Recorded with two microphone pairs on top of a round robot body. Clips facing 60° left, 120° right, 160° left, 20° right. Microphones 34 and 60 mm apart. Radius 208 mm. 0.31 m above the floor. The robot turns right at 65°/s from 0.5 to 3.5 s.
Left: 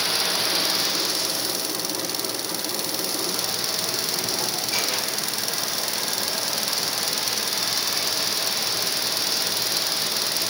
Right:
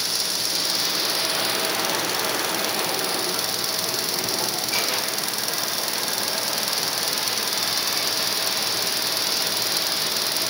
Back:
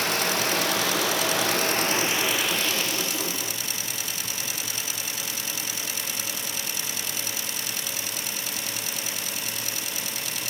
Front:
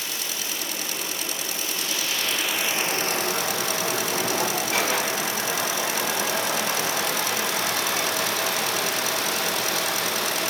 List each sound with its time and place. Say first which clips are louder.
0.0 s running water: left 3 dB, back 8 dB; 125° left; by 10.5 s 40° right